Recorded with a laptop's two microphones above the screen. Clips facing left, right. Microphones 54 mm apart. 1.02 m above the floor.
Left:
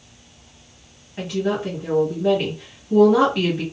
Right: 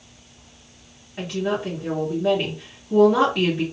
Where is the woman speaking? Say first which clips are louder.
Left 2 dB; centre (ahead or behind), 1.7 m.